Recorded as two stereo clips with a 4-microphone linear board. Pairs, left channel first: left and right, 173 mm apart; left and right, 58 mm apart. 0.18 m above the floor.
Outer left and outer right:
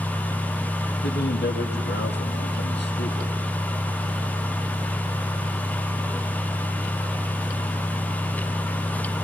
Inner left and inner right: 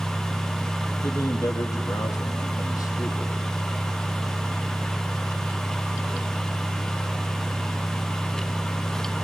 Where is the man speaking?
80° left, 6 m.